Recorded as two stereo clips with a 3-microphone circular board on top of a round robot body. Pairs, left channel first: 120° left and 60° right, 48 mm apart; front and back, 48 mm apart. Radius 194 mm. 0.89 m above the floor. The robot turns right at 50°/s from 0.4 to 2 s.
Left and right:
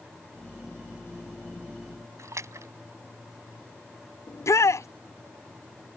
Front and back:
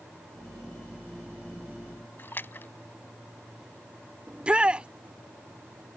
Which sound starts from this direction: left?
A shout, at 4.3 s.